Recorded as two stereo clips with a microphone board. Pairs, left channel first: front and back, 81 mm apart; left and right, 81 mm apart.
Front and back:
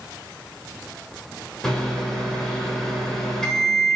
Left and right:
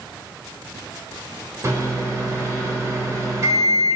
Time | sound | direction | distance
1.6 | a microwave | 80° right | 1.0 m